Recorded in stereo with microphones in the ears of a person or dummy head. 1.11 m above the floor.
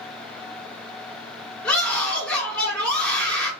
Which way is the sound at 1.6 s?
5° left (ahead or behind).